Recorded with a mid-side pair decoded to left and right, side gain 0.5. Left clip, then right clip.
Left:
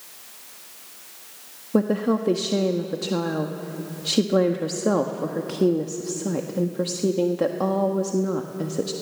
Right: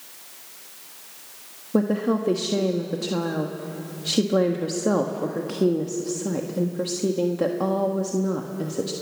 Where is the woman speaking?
10° left, 1.5 m.